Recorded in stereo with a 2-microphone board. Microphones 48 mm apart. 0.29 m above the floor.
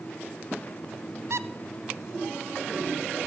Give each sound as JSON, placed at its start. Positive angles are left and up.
{"t": 1.3, "sound": "a squeak", "side_deg": -75, "distance_m": 0.5}